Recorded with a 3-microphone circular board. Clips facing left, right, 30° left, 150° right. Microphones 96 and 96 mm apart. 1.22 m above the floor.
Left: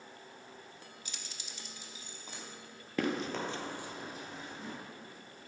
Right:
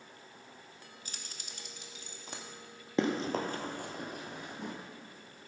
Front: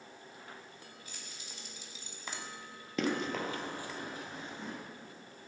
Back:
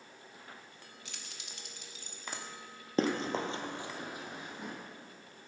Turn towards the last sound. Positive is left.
turn(degrees=-75)